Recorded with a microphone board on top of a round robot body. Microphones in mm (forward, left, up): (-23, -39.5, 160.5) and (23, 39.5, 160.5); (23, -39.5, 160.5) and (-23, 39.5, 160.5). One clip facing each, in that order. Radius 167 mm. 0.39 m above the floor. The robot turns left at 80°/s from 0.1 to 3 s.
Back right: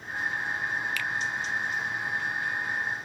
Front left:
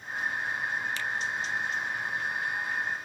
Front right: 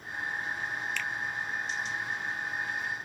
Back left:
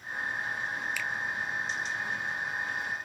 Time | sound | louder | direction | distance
1.0 | a finger snap | back right 1 dB, even | 40° left | 0.9 m